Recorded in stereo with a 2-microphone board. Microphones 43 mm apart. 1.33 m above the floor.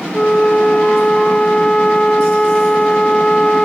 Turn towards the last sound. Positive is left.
turn(degrees=25)  # may be behind; listen again after turning